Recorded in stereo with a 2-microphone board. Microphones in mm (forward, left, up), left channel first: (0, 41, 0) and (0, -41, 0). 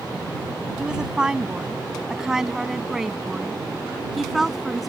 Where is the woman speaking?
10° right (ahead or behind); by 4.9 s centre (ahead or behind).